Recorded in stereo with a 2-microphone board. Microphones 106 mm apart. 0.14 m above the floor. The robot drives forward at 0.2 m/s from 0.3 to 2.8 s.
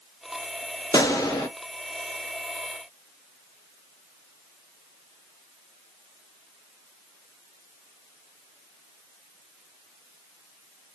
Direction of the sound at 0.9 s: 40° left (ahead or behind).